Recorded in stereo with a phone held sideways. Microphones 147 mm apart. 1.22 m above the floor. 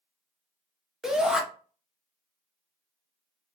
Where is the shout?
5° right (ahead or behind), 0.8 m.